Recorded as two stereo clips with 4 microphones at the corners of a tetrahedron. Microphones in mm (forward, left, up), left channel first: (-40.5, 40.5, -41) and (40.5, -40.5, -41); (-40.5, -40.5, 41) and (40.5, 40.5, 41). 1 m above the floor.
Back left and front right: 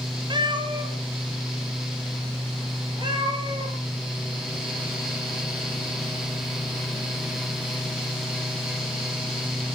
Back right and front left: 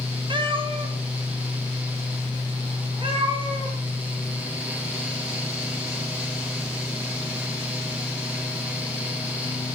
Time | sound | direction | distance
0.3 | a cat meowing | straight ahead | 1.9 m